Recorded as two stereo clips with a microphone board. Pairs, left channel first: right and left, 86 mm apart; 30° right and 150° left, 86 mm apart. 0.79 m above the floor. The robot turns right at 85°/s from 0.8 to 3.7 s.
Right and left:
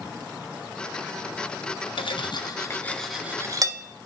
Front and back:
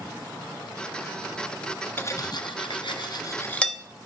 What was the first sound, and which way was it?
Cutlery clinking, 95° right.